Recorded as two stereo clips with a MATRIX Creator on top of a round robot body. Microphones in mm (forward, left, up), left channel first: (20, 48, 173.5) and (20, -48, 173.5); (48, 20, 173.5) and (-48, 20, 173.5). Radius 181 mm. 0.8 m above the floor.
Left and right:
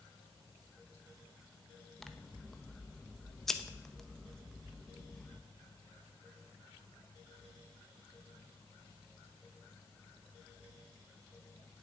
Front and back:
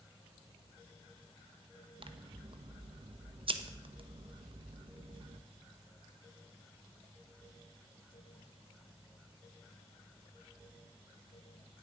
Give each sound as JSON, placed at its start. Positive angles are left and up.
{"t": 2.0, "sound": "scissors", "azimuth_deg": 175, "distance_m": 1.2}